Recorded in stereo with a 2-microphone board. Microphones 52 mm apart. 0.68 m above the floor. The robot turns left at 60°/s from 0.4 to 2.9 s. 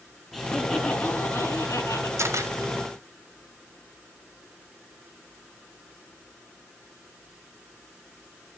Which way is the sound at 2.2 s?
65° right (ahead or behind).